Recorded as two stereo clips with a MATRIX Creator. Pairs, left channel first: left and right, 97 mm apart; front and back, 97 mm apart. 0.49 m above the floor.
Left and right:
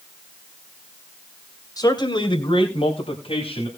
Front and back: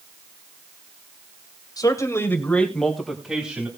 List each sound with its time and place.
1.8 s a man speaking: 45° left, 2 m; by 3.7 s 105° left, 3.5 m